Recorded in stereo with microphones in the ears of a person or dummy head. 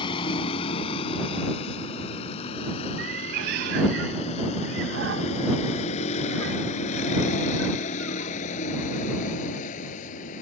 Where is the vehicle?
25° left (ahead or behind); by 10.4 s 40° left (ahead or behind).